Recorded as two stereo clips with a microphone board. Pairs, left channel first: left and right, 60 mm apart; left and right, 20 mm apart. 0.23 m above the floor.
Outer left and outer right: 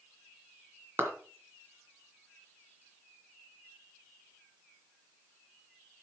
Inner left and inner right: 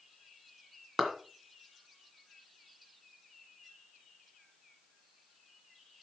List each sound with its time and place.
1.0 s a clap: 40° right (ahead or behind), 2.5 m